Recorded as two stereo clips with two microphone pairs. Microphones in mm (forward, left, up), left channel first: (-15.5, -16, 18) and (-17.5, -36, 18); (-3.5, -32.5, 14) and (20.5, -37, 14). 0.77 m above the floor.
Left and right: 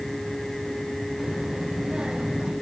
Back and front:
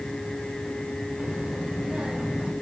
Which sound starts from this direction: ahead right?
A child speaking, at 1.2 s.